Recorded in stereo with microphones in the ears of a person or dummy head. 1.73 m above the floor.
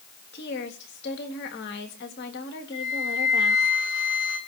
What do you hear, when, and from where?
0.3 s a woman speaking: 55° left (ahead or behind), 3 m
2.7 s a flute: 75° left (ahead or behind), 9 m